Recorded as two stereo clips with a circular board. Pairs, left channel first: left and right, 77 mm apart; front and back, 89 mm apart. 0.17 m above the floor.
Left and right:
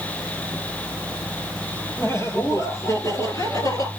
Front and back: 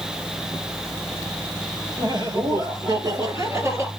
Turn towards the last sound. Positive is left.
turn(degrees=125)